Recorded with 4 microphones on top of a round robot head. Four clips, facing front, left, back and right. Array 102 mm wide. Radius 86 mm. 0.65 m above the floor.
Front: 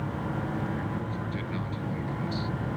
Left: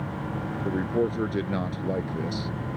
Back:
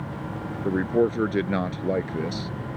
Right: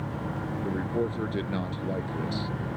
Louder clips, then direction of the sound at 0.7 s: Left 4 dB, back 11 dB; 170° left.